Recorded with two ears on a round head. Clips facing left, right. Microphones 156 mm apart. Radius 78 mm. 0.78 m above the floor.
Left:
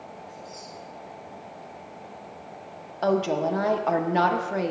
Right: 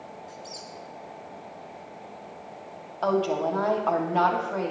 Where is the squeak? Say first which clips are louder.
Even; 80° right, 2.5 m.